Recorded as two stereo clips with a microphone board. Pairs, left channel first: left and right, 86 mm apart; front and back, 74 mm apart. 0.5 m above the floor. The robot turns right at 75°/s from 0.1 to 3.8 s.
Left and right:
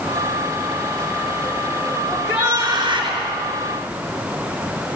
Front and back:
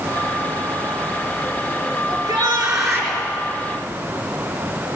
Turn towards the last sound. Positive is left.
turn(degrees=-55)